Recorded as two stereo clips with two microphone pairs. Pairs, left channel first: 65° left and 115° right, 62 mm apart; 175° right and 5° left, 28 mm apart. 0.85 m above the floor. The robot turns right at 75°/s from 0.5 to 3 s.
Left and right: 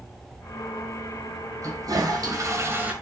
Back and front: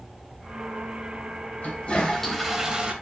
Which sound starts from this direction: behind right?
A toilet flushing, at 1.6 s.